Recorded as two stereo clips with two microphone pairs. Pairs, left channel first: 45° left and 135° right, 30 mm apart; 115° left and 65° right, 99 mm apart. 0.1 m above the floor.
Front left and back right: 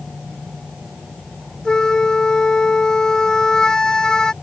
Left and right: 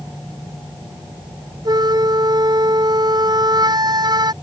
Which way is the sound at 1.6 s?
25° right.